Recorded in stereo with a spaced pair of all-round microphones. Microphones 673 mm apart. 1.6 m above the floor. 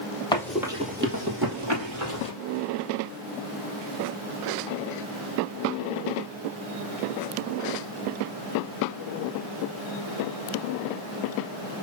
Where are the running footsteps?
5° left (ahead or behind), 2 m; by 2.3 s 55° right (ahead or behind), 2.5 m.